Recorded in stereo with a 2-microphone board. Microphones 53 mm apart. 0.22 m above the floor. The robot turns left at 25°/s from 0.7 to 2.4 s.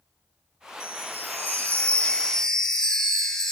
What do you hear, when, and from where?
0.8 s a chime: 50° left, 3.5 m; by 3.5 s 10° left, 3.5 m